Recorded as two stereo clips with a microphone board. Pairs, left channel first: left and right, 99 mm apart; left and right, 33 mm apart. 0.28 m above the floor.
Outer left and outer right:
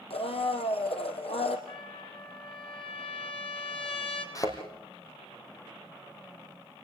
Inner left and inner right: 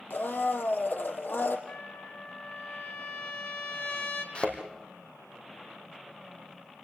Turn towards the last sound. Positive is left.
turn(degrees=35)  # may be behind; listen again after turning